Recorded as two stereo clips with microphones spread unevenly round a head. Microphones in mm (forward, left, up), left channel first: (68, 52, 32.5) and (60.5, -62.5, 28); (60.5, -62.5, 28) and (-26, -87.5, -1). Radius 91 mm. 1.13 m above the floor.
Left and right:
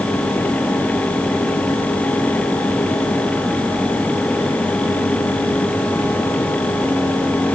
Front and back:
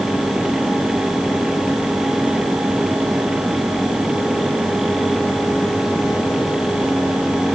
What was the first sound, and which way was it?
Only background noise.